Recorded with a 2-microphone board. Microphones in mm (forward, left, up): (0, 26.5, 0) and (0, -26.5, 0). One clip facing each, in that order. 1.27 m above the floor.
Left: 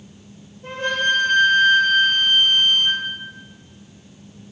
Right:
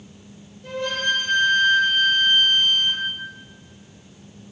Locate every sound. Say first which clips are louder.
0.6 s a flute: left 3 dB; 40° left (ahead or behind), 3 m